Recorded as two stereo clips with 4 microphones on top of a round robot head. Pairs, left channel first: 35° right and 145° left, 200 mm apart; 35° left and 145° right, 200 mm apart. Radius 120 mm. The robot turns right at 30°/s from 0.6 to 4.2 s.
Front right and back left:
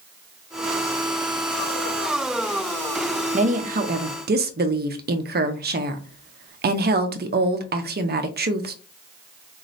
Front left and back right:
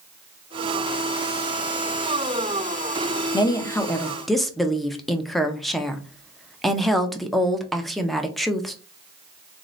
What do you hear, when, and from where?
3.3 s a woman speaking: 100° left, 0.6 m; by 8.8 s 125° left, 0.6 m